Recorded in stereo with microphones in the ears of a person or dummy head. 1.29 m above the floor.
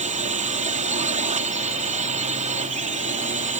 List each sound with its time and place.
0.0 s a drone: 35° right (ahead or behind)